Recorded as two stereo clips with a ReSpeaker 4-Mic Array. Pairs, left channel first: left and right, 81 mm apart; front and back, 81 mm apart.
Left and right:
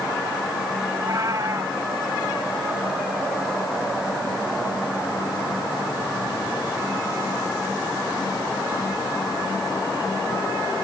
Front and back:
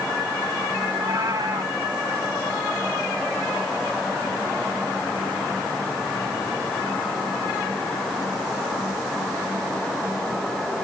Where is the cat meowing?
135° right.